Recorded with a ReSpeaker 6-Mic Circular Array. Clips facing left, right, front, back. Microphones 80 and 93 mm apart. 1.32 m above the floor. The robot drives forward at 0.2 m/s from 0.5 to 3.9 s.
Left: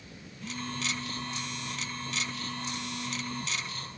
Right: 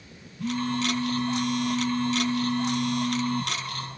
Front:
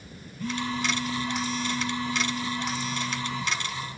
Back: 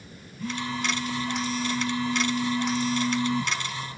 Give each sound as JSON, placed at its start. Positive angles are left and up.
{"t": 0.4, "sound": "a phone buzzing", "azimuth_deg": -95, "distance_m": 1.4}